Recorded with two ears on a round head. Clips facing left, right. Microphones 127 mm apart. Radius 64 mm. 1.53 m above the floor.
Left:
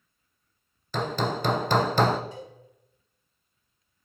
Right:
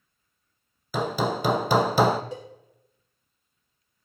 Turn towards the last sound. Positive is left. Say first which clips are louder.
# right 4 dB
turn(degrees=-55)  # may be behind; listen again after turning